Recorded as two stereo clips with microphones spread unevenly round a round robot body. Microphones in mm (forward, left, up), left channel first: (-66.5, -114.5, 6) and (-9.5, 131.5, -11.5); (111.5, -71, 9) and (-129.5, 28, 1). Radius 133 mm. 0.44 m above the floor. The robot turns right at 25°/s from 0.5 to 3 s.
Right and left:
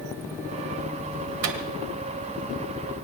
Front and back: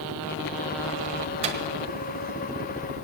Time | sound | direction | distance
1.4 | a microwave | 95° left | 1.4 m